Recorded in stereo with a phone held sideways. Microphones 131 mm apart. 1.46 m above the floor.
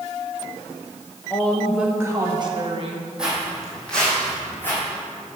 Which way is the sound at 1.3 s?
15° left (ahead or behind).